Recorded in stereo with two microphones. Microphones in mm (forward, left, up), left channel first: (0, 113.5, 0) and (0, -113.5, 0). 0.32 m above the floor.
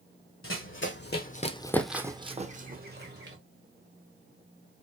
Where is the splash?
No splash in this recording.